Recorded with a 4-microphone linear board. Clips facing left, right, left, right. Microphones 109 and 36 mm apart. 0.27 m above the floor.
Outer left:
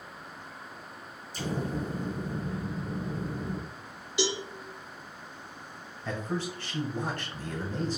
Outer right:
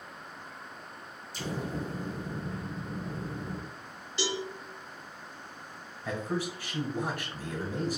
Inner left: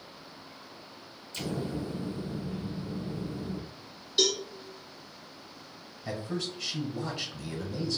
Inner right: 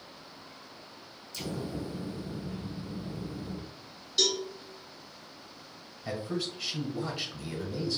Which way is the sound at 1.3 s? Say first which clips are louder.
Outer left 3 dB, inner left 2 dB; 40° left (ahead or behind).